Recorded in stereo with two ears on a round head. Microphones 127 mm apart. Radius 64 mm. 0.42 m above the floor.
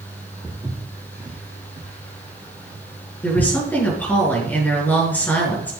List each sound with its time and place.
0.4 s footsteps: 20° right (ahead or behind), 3.5 m; by 3.5 s 45° right (ahead or behind), 4.5 m
3.2 s a woman speaking: 15° left (ahead or behind), 5.5 m